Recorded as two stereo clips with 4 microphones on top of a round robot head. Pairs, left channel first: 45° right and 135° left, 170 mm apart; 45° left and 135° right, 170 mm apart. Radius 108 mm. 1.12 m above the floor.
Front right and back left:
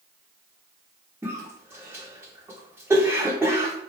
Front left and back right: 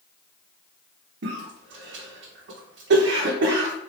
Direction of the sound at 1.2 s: 145° right.